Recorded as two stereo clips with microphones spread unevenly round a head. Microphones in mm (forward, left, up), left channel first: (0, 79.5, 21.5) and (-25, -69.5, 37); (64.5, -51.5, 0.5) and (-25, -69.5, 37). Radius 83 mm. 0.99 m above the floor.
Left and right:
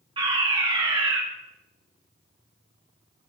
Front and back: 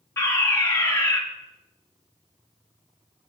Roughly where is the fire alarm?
Ahead right.